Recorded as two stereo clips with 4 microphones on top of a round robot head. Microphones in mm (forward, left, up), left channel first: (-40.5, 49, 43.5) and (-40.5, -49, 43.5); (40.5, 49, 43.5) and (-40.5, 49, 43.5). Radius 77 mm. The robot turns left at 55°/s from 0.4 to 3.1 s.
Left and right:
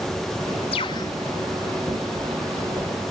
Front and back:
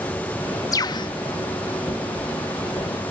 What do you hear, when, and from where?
0.7 s a bird: 45° left; by 1.1 s 25° left